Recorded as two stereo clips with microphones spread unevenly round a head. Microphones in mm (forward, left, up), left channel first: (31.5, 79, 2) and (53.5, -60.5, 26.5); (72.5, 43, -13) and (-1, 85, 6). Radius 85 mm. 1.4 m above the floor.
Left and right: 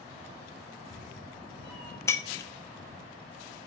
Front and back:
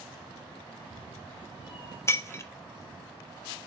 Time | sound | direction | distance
0.7 | a cat meowing | 20° left | 4.5 m
2.1 | breaking glass | 25° left | 0.8 m